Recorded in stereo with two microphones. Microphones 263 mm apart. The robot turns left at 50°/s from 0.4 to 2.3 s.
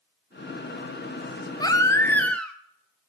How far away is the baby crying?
About 0.6 m.